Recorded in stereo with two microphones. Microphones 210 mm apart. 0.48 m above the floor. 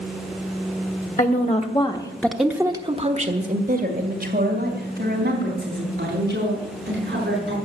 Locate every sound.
1.2 s a woman speaking: 45° left (ahead or behind), 1.5 m; by 7.5 s 55° right (ahead or behind), 5.5 m